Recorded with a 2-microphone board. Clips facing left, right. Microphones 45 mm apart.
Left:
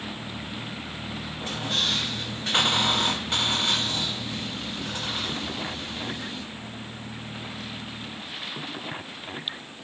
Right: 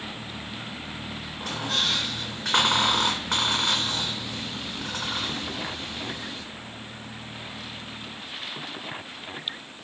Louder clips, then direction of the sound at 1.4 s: Right 1 dB; 70° right (ahead or behind).